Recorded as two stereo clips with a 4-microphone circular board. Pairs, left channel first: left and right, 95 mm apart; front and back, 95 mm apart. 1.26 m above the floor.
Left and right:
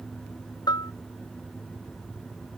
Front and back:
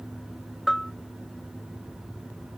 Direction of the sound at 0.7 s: 90° left.